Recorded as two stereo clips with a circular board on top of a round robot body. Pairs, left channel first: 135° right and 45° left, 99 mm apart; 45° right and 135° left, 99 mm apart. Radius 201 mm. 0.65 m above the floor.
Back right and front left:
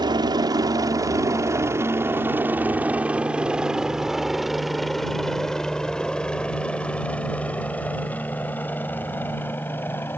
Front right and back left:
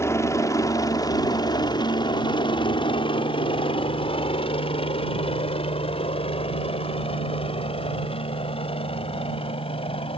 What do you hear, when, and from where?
0.0 s a helicopter: 10° left; by 10.2 s 65° right